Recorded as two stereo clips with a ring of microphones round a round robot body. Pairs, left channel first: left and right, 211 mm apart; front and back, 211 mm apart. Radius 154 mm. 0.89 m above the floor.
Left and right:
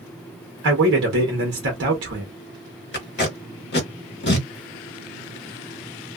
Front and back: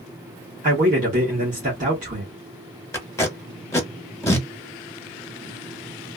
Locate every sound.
0.6 s a man speaking: 125° right, 1.0 m
2.9 s tape being pulled: 75° left, 1.3 m